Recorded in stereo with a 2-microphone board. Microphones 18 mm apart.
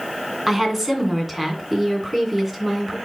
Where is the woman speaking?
10° right (ahead or behind), 2 m.